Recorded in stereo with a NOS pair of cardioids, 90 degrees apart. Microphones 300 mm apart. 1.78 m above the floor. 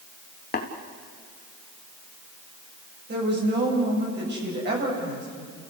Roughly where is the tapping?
Ahead left.